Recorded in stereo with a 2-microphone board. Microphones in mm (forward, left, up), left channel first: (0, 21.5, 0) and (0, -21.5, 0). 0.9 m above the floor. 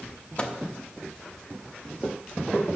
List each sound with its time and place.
0.4 s a microwave: 25° left (ahead or behind), 0.8 m